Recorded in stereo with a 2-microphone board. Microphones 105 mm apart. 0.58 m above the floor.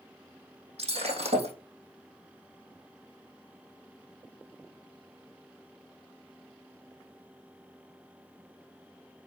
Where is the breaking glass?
80° right, 3.5 m.